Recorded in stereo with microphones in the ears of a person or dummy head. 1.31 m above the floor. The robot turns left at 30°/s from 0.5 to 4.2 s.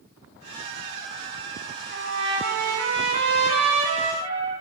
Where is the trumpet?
85° right, 2.5 m; by 4.5 s 155° right, 2.5 m.